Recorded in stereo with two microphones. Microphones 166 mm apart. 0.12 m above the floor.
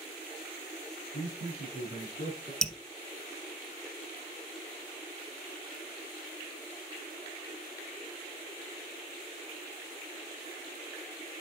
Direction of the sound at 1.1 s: 70° left (ahead or behind).